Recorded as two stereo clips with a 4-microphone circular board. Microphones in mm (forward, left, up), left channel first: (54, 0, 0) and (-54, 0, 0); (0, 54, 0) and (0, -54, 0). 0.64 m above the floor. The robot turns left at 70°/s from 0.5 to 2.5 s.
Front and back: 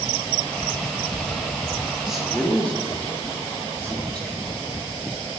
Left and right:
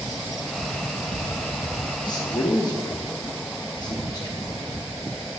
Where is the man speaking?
100° left, 0.9 m; by 4.9 s 70° left, 0.9 m.